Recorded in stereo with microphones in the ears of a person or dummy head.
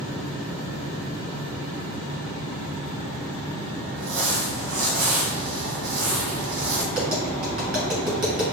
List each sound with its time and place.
4.0 s crumpling: 85° right, 1.3 m
6.9 s tapping: 60° right (ahead or behind), 2.0 m